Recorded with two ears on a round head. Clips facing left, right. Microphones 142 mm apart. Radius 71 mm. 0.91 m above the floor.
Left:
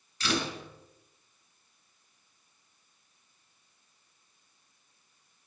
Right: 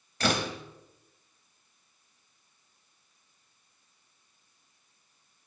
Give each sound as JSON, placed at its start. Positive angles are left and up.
{"t": 0.2, "sound": "a door slam", "side_deg": -45, "distance_m": 3.0}